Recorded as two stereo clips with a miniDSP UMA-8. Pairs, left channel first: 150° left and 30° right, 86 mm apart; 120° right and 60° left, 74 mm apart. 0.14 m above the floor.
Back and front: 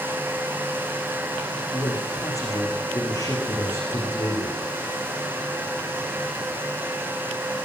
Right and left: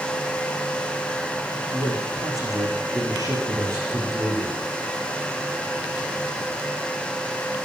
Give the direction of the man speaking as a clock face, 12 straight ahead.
9 o'clock.